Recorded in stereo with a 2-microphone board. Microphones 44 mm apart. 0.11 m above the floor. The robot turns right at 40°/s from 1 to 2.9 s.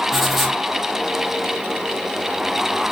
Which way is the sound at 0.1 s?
Centre (ahead or behind).